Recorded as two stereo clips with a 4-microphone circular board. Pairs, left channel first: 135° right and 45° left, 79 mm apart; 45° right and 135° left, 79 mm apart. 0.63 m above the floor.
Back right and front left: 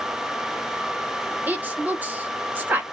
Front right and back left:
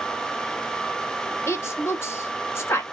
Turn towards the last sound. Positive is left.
turn(degrees=-10)